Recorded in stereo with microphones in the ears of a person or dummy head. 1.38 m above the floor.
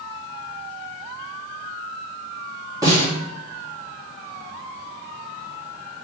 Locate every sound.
2.8 s a snare drum: 20° right (ahead or behind), 2 m